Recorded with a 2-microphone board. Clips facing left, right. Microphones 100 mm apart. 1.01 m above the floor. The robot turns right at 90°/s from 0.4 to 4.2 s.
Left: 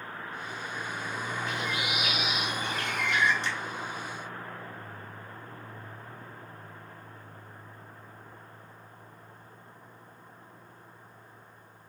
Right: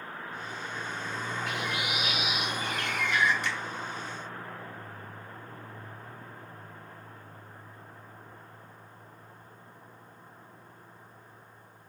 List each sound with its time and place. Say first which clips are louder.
1.5 s a bird: even; 85° right, 2.5 m; by 3.3 s 85° left, 2.5 m
3.4 s a finger snap: even; 30° left (ahead or behind), 3 m; by 3.6 s 45° left (ahead or behind), 3 m